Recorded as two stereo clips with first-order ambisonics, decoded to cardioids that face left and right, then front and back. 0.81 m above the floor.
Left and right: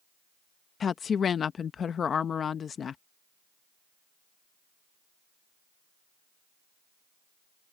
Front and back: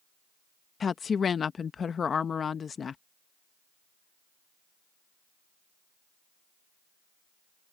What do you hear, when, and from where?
0.8 s a woman speaking: 50° left